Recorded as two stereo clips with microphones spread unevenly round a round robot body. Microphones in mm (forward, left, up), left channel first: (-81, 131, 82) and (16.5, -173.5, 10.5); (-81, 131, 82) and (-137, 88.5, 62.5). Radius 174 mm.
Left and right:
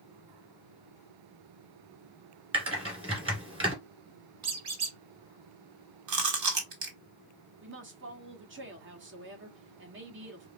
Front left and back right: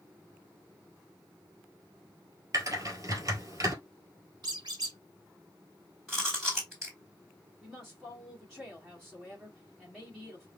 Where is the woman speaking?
70° right, 1.2 m.